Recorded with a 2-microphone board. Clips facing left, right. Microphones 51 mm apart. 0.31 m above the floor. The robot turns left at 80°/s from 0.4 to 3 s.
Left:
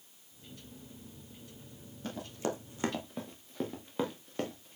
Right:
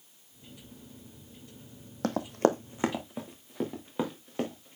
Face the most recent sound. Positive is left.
turn(degrees=-10)  # may be behind; listen again after turning